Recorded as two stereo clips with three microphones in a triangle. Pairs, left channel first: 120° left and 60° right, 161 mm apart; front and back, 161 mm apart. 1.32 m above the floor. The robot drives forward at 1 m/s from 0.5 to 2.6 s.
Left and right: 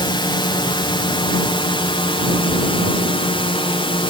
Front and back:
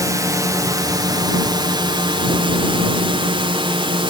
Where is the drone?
135° left; by 4.1 s 150° left.